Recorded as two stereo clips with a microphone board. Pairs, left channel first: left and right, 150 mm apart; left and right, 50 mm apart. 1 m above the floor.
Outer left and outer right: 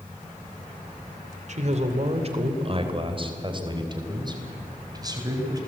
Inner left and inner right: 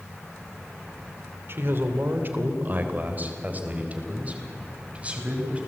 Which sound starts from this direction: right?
A man speaking, at 1.5 s.